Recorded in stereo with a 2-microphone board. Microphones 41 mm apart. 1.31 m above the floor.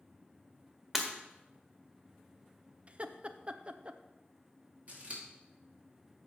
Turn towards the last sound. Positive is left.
turn(degrees=-40)  # may be behind; listen again after turning